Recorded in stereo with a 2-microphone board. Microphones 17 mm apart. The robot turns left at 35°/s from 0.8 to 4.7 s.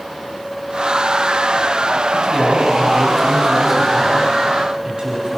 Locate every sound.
2.1 s a man speaking: 40° left, 6.5 m; by 5.4 s 50° right, 6.5 m